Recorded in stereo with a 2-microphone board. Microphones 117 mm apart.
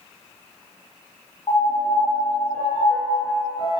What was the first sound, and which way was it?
A piano, 50° left (ahead or behind).